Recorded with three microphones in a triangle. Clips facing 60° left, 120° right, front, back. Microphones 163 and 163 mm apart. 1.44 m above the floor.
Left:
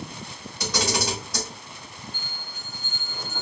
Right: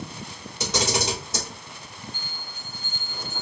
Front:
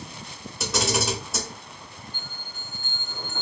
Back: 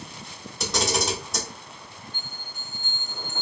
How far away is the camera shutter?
About 1.2 m.